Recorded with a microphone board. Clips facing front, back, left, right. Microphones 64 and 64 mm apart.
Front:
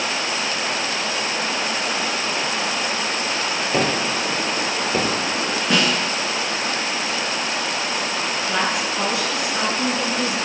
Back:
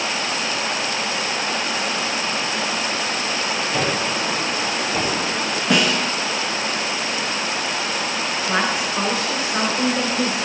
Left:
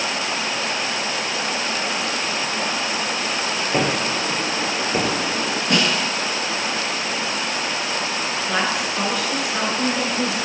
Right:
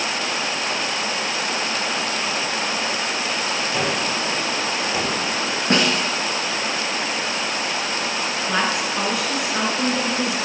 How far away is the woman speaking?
About 1.8 m.